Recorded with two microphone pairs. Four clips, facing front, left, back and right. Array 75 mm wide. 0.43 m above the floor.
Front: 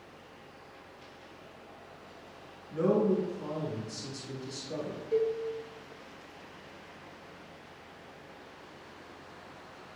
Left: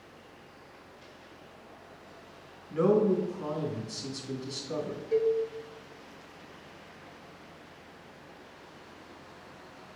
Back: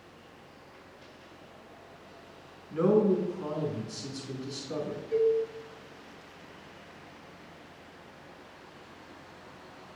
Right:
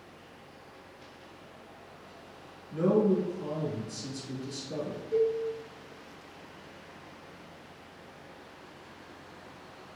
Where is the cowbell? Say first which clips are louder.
Left 1 dB, back 4 dB; 85° left, 1.7 m.